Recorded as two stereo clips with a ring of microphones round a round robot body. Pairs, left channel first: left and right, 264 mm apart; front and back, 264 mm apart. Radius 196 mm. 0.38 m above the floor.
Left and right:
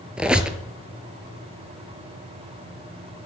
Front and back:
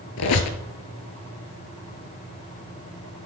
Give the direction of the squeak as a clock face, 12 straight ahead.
12 o'clock.